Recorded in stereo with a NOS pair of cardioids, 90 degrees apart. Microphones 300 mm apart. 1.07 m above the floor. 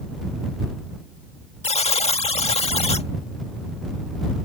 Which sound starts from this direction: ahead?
A buzzer, at 1.6 s.